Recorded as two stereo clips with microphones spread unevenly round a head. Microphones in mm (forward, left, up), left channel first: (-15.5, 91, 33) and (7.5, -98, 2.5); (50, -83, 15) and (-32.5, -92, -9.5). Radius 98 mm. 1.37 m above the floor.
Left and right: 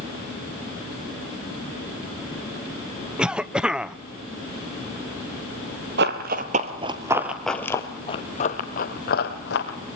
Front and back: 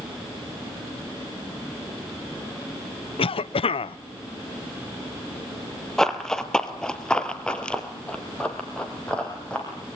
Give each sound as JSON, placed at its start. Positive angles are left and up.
{"t": 3.2, "sound": "a cough", "azimuth_deg": 0, "distance_m": 0.8}
{"t": 6.0, "sound": "running footsteps", "azimuth_deg": -60, "distance_m": 1.9}